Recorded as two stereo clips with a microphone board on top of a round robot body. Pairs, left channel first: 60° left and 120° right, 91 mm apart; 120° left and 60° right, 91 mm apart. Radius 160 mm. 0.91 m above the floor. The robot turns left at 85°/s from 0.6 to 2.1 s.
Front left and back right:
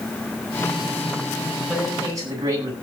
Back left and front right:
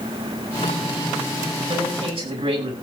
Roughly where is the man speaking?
Ahead right.